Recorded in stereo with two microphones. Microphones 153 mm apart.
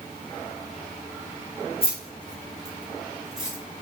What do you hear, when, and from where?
1.8 s keys jangling: 40° left (ahead or behind), 1.3 m; by 3.6 s 10° right (ahead or behind), 1.1 m